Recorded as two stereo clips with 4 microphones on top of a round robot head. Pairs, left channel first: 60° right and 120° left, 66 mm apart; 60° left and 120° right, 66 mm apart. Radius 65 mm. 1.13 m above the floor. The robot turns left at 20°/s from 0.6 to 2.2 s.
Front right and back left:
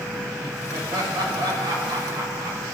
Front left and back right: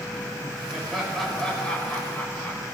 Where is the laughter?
155° left, 5 m; by 2.6 s 125° left, 5 m.